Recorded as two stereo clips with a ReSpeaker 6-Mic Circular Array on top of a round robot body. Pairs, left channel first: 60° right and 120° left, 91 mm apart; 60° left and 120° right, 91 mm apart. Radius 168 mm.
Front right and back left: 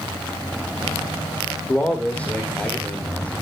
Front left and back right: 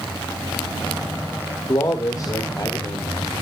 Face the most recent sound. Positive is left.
turn(degrees=15)